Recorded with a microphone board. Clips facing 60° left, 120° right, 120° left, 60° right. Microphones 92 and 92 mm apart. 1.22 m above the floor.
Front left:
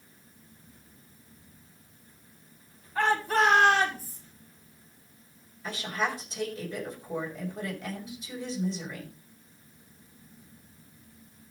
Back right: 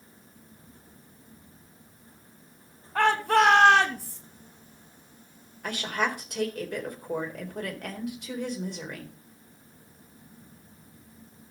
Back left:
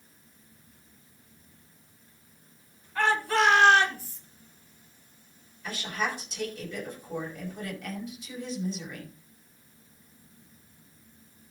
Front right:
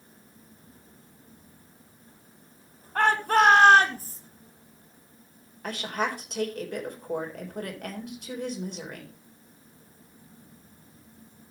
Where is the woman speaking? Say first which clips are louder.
Back right 2 dB, front right 2 dB; 90° right, 4 m.